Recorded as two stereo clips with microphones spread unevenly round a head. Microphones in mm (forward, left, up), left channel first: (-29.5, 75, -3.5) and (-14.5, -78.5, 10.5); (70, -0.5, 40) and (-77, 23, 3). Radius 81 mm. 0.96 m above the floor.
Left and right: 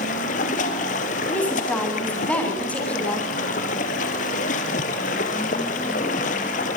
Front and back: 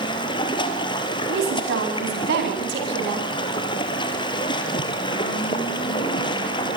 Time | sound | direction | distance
0.0 | running water | 50° left | 3 m
1.3 | a woman speaking | 175° left | 9.5 m